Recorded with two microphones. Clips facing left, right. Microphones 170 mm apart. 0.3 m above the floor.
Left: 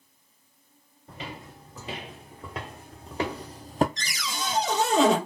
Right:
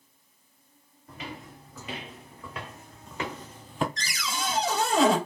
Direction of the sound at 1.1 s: 30° left (ahead or behind).